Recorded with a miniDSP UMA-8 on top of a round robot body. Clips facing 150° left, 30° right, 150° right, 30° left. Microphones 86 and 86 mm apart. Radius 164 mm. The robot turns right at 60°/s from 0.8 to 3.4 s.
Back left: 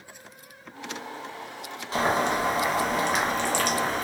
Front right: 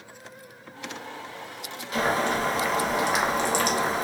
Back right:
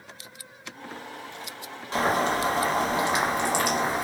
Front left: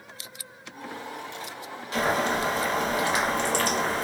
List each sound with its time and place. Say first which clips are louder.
1.9 s boiling: even, back right 1 dB; straight behind, 1.1 m; by 4.0 s 90° right, 1.1 m